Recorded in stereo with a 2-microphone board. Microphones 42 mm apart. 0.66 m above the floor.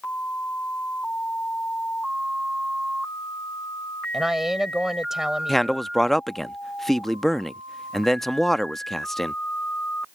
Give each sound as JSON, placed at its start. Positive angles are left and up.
{"t": 4.1, "sound": "a woman speaking", "side_deg": -10}
{"t": 5.5, "sound": "a man speaking", "side_deg": 5}